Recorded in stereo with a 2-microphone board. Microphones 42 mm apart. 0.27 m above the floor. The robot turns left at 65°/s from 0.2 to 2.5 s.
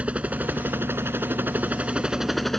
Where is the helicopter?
35° right; by 2.6 s 175° left.